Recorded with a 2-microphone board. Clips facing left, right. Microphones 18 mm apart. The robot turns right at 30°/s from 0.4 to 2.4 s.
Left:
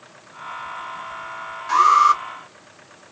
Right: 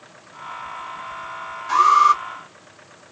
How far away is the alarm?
About 2.5 m.